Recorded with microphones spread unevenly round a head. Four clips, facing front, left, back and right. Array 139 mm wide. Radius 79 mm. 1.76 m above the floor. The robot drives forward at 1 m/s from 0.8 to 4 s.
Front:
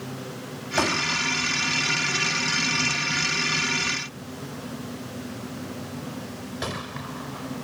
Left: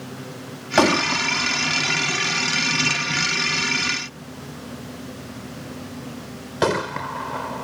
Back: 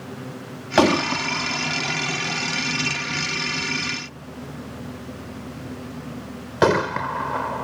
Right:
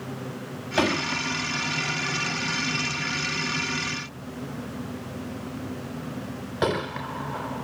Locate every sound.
0.8 s a gunshot: 150° left; by 7.6 s 165° left